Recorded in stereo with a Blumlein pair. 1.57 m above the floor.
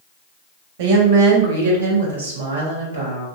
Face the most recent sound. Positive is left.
turn(degrees=-80)